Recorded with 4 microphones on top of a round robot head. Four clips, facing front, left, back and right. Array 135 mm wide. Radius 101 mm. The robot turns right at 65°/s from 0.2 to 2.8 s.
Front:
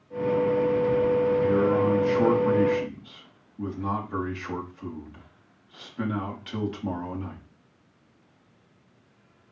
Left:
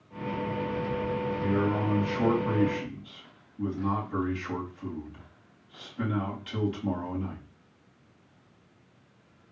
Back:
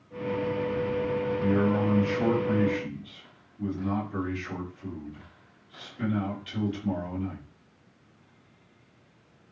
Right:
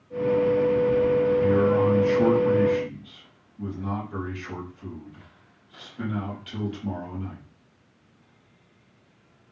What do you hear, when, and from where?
1.4 s a man speaking: 95° right, 4 m; by 7.4 s straight ahead, 4 m